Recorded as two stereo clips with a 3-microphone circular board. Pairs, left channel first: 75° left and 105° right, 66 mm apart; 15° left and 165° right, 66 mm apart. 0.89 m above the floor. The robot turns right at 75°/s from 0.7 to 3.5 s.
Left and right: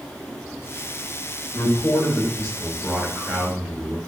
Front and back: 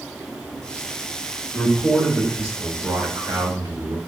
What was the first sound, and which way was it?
A man speaking, 70° left.